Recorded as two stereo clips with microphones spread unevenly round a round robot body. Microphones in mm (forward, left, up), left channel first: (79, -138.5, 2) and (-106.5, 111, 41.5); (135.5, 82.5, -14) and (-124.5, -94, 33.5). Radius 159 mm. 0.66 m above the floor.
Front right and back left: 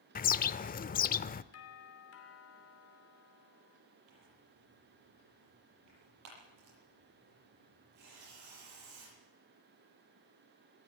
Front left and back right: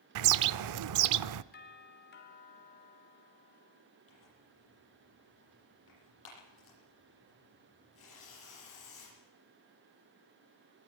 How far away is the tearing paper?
About 9.5 m.